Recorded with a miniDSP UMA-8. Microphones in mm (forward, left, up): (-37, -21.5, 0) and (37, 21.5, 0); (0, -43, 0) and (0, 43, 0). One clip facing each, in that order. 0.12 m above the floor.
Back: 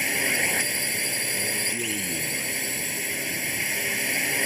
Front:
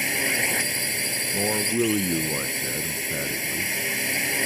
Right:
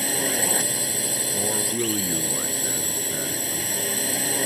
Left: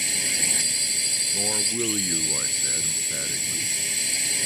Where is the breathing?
No breathing in this recording.